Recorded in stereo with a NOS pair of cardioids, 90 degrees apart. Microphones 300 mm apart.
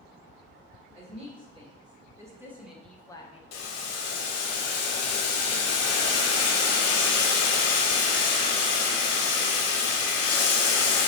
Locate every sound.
0.9 s a woman speaking: 20° right, 1.8 m; by 3.4 s 30° left, 0.5 m
3.5 s boiling: 65° left, 0.7 m